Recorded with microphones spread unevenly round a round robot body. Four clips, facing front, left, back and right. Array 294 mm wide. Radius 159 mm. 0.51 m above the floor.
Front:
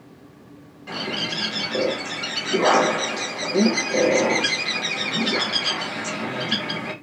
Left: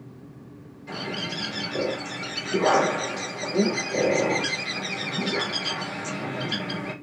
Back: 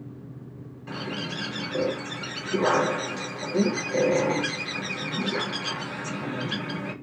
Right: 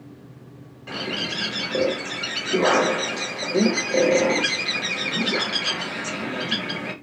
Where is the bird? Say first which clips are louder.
Right 2 dB, front 4 dB; 80° right, 1.5 m.